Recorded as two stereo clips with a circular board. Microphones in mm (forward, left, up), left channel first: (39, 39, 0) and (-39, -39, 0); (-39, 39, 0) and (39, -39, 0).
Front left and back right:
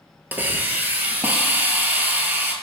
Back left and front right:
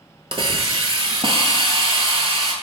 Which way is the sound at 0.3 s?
65° right.